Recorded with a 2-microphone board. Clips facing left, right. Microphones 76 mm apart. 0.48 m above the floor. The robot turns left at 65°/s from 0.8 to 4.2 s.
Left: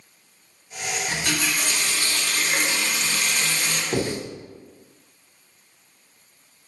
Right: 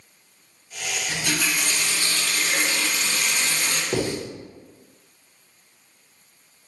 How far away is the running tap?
About 1.1 m.